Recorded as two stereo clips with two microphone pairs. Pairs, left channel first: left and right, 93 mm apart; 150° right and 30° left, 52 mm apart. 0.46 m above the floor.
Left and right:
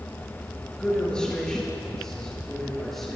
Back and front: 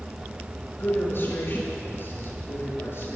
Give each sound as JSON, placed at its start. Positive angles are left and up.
{"t": 0.7, "sound": "a man speaking", "azimuth_deg": 170, "distance_m": 9.5}